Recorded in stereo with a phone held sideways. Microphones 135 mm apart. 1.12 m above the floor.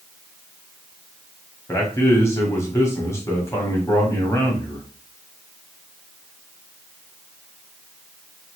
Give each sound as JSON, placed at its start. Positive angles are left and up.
{"t": 1.7, "sound": "a man speaking", "side_deg": 20, "distance_m": 1.1}